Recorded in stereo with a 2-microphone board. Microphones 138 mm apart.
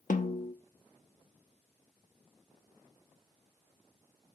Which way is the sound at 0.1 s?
70° left (ahead or behind).